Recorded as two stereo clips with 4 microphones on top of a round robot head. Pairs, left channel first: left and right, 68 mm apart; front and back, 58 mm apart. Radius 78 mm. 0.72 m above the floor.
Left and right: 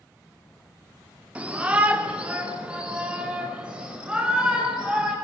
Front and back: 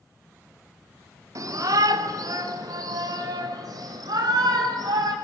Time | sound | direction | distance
1.4 | a shout | 160° right | 2.5 m